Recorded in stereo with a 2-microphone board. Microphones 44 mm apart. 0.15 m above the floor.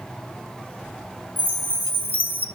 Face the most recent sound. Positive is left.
turn(degrees=-50)  # may be behind; listen again after turning